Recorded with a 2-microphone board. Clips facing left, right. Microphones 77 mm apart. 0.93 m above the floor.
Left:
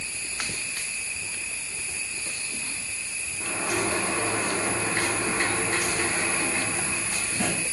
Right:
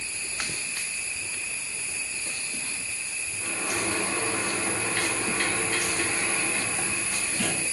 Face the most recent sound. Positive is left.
turn(degrees=25)  # may be behind; listen again after turning